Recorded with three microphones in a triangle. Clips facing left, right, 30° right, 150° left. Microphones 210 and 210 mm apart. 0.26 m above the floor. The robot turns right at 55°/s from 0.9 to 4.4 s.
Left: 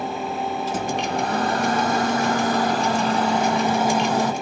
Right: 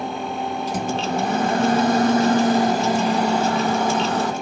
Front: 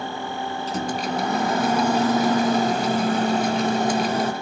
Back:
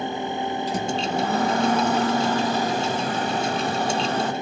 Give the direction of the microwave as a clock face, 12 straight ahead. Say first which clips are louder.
Right 3 dB, front 2 dB; 5 o'clock.